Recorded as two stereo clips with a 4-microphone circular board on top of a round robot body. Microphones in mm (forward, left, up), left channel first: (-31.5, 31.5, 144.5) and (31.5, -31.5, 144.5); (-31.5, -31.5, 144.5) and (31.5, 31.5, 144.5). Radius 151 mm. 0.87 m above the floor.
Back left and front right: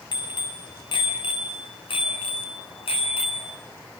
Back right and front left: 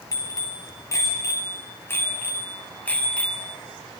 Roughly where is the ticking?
No ticking in this recording.